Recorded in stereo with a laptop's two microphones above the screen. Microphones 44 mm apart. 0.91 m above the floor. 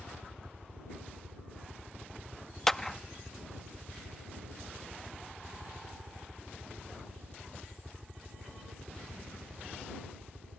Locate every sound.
0.0 s a helicopter: 35° right (ahead or behind)
2.7 s a clap: 10° left (ahead or behind)